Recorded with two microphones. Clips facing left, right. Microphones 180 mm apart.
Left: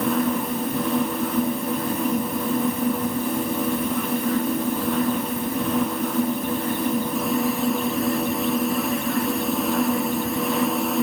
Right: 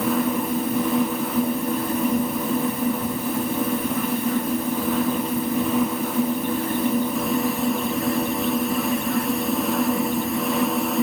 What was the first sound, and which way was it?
Only background noise.